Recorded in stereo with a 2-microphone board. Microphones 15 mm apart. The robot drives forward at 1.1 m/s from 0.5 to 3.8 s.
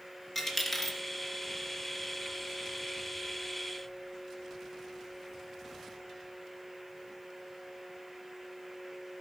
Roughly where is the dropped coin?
Centre.